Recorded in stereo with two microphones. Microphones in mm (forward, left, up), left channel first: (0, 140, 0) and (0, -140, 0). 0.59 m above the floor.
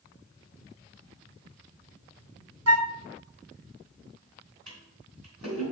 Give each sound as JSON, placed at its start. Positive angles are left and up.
{"t": 2.7, "sound": "a flute", "side_deg": -60, "distance_m": 0.5}
{"t": 4.7, "sound": "a toilet flushing", "side_deg": -80, "distance_m": 3.0}